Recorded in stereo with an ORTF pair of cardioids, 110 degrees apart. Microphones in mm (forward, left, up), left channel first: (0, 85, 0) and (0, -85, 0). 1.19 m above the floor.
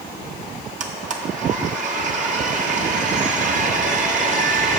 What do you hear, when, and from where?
0.8 s a blender: 50° right, 1.2 m